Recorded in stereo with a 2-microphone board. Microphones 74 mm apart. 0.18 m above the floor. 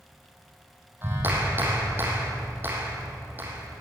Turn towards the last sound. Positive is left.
turn(degrees=-30)  # may be behind; listen again after turning